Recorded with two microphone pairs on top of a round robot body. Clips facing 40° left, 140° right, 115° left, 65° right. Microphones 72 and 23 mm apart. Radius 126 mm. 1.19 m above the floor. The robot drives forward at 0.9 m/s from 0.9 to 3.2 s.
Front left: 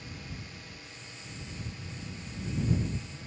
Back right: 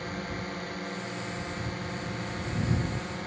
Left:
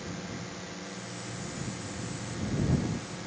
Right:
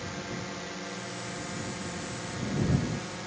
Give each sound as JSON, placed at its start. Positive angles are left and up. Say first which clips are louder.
{"t": 0.0, "sound": "a drone", "louder": "back right 10 dB, right 2 dB", "azimuth_deg": -130}